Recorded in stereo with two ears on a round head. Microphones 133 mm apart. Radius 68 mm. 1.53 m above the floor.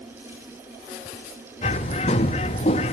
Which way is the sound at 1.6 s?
40° left (ahead or behind).